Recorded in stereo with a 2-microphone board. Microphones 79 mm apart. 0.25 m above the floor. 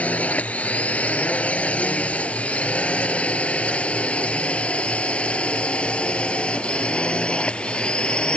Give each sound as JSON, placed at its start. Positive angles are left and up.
{"t": 0.0, "sound": "a drone", "side_deg": 20}